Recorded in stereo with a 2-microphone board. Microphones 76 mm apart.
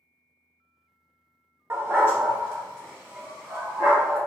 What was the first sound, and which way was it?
A dog barking, 30° right (ahead or behind).